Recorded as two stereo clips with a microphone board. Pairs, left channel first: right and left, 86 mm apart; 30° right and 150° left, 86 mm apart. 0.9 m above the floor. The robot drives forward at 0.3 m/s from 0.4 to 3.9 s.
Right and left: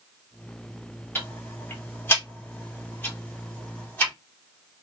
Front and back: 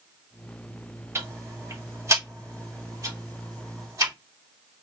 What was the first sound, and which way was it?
Ticking, 150° right.